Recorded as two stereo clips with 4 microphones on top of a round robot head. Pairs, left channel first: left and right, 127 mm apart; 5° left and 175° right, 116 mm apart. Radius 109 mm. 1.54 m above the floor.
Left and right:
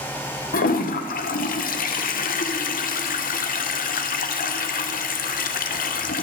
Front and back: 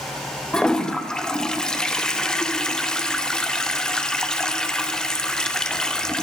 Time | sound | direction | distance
0.5 | a toilet flushing | 90° left | 1.4 m